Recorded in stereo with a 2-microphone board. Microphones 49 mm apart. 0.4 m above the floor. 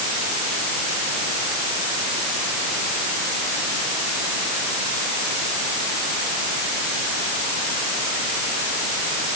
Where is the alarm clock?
I don't hear an alarm clock.